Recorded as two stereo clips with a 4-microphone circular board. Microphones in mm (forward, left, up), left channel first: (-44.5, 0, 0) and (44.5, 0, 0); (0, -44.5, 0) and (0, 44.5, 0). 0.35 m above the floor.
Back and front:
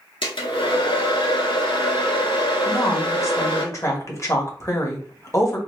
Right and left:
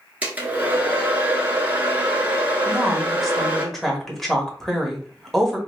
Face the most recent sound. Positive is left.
turn(degrees=-175)